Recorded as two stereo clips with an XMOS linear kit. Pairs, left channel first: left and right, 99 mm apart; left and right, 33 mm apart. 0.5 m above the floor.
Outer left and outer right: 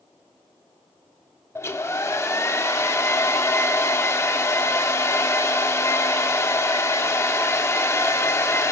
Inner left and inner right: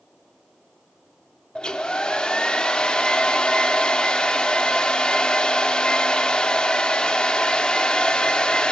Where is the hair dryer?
25° left (ahead or behind), 0.6 m.